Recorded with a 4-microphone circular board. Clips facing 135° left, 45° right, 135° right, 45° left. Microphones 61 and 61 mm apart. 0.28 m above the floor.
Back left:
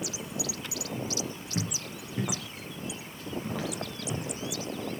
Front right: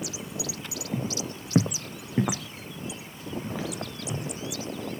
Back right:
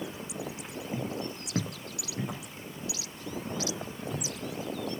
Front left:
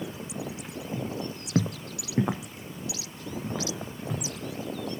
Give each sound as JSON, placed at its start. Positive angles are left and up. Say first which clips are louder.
{"t": 0.9, "sound": "footsteps", "louder": "front right 4 dB, front left 1 dB", "azimuth_deg": -70, "distance_m": 0.9}